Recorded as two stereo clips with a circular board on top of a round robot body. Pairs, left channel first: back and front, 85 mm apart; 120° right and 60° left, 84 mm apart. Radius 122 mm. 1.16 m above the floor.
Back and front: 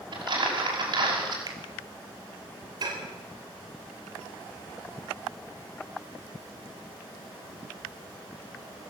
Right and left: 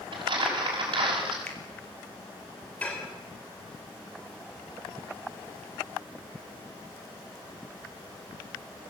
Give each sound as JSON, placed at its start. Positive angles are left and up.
{"t": 0.1, "sound": "crumpling", "azimuth_deg": 30, "distance_m": 6.0}
{"t": 1.5, "sound": "a finger snap", "azimuth_deg": -45, "distance_m": 2.5}
{"t": 2.8, "sound": "dishes clattering", "azimuth_deg": -45, "distance_m": 3.0}